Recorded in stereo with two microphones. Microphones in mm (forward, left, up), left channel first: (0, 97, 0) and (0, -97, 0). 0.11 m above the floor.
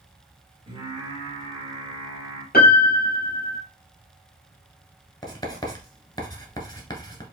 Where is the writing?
20° left (ahead or behind), 1.2 m.